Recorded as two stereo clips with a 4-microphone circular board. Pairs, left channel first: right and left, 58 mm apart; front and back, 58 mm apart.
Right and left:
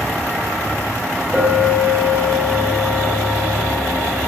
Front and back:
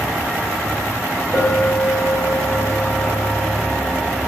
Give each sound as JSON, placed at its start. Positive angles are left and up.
{"t": 1.3, "sound": "a clink", "azimuth_deg": -15, "distance_m": 1.6}